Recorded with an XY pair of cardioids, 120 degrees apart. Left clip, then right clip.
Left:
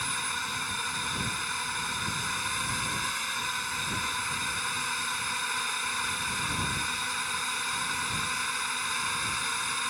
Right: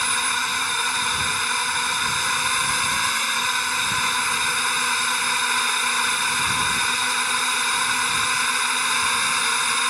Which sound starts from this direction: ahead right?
A drone, at 0.0 s.